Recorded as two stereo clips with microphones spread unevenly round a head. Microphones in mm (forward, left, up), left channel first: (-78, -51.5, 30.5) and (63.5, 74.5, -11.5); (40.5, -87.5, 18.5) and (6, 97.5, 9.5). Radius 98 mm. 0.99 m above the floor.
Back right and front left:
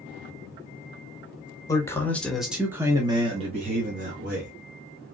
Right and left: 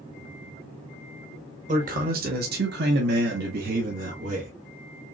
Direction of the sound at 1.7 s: 145° left.